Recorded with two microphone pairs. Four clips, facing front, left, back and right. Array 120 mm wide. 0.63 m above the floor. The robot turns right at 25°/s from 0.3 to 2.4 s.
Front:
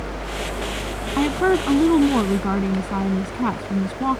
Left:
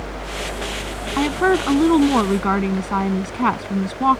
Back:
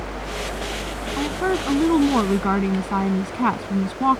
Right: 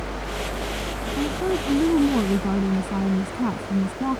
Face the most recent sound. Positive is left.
turn(degrees=110)